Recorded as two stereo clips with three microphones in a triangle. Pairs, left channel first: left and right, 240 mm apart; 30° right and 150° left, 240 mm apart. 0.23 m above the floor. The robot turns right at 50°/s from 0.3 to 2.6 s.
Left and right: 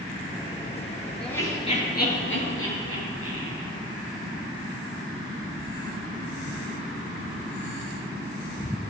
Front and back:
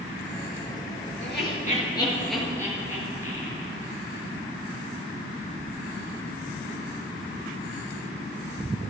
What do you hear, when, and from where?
1.2 s laughter: 5° left, 4.5 m; by 3.7 s 70° left, 4.5 m